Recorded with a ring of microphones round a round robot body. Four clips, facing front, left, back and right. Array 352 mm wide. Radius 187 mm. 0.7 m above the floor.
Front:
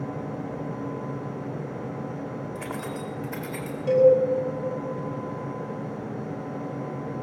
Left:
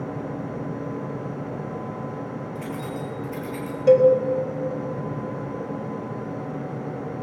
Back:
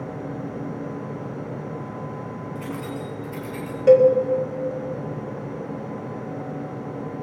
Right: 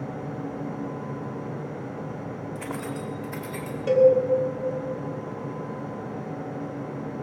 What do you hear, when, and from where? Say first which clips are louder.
2.5 s keys jangling: even, back 2 dB; 30° right, 3 m; by 3.8 s 20° right, 3.5 m
3.9 s a cowbell: left 3 dB, back 4 dB; 165° left, 1.8 m